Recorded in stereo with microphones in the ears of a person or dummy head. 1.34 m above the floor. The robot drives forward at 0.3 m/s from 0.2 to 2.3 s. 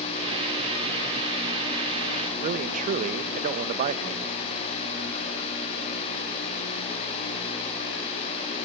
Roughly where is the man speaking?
Right.